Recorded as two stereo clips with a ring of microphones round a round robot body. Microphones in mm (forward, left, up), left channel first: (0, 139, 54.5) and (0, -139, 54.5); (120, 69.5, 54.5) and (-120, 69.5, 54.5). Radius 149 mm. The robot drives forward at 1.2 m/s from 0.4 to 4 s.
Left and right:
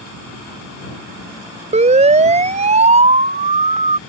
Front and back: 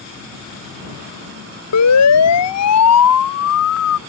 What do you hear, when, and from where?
1.7 s a siren: 25° right